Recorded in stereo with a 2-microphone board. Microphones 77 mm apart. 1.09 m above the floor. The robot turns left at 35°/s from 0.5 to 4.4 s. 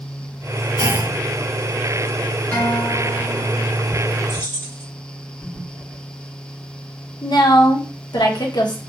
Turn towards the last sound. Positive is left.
turn(degrees=65)  # may be behind; listen again after turning